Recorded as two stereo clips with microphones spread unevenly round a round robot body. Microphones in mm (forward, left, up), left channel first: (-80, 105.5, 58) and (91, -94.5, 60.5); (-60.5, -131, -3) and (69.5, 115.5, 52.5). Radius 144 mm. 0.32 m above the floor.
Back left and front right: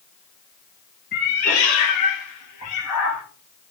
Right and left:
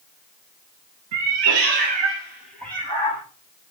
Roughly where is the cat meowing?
Left.